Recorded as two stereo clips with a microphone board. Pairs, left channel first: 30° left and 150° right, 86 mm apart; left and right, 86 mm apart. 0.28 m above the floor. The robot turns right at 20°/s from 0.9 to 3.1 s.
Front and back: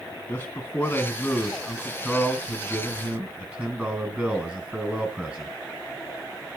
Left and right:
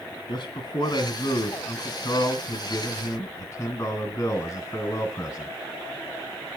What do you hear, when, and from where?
0.3 s a man speaking: 95° left, 3 m; by 5.5 s 140° left, 3 m